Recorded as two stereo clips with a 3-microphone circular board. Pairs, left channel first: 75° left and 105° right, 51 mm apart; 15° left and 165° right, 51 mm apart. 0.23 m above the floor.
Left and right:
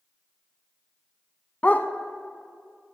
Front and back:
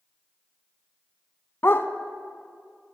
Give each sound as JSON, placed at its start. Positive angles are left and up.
{"t": 1.6, "sound": "a dog barking", "azimuth_deg": 25, "distance_m": 0.8}